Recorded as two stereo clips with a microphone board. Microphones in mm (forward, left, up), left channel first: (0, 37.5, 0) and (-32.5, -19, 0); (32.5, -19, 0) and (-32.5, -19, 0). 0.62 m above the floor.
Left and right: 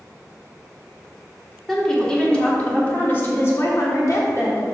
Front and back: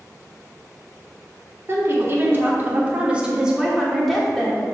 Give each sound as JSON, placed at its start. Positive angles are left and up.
{"t": 1.7, "sound": "a woman speaking", "azimuth_deg": 140, "distance_m": 1.6}